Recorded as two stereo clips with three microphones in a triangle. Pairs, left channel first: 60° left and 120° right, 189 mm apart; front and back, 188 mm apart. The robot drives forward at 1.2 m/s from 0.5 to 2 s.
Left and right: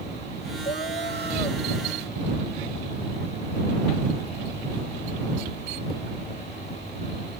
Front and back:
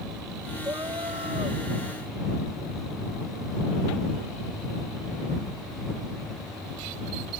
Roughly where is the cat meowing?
Left.